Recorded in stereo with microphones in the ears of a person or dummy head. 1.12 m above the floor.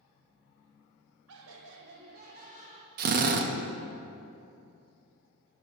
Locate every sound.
1.3 s laughter: 85° right, 0.7 m; by 2.9 s 35° right (ahead or behind), 1.1 m
3.0 s a drill: 45° right (ahead or behind), 0.6 m